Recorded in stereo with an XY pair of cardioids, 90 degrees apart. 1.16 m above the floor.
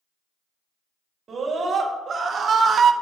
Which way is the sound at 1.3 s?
50° right.